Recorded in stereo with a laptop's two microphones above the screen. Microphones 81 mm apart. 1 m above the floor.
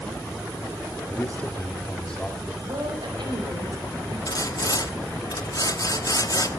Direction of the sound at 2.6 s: 65° right (ahead or behind).